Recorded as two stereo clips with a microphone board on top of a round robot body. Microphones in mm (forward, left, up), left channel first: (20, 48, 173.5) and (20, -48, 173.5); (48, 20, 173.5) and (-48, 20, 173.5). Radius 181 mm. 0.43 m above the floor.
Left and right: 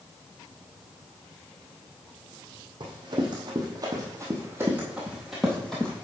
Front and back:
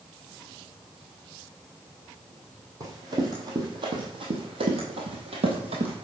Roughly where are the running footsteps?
Behind right.